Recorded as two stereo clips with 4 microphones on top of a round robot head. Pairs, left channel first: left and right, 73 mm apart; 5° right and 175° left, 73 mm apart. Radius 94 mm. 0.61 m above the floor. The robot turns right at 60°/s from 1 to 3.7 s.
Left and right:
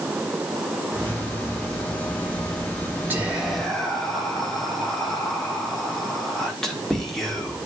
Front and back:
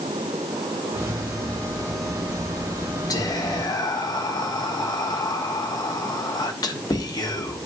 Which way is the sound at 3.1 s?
30° right.